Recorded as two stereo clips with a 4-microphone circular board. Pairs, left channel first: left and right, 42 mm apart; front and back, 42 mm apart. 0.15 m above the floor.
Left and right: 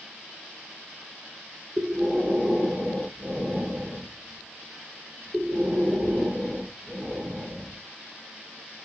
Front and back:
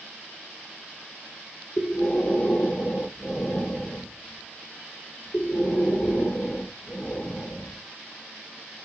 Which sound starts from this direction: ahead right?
Breathing, at 1.8 s.